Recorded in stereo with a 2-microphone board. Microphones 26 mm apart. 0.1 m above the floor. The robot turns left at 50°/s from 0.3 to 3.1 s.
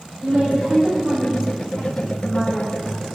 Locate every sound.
0.2 s a woman speaking: 105° right, 5.5 m; by 2.8 s 130° left, 5.5 m